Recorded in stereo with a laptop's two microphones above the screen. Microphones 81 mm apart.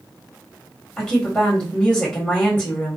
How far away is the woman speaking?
About 1.7 m.